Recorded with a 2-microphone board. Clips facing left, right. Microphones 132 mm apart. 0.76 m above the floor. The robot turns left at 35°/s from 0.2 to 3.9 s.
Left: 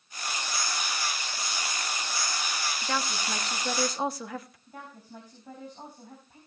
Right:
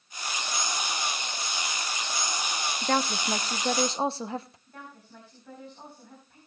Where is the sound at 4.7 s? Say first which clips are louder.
Left 2 dB; 15° left (ahead or behind), 4.5 m.